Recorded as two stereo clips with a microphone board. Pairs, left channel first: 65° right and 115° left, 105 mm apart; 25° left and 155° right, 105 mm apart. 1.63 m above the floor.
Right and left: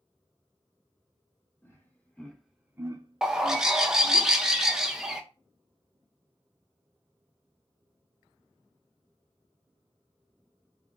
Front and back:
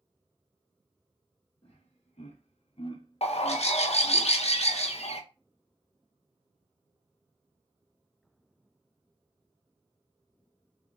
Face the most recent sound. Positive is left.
turn(degrees=30)